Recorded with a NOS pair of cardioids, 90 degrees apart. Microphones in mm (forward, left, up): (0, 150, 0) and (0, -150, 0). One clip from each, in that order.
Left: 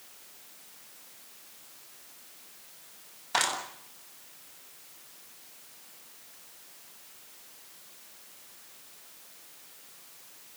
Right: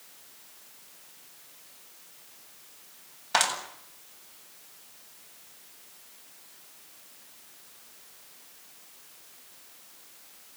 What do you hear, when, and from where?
3.3 s a clap: 40° right, 8 m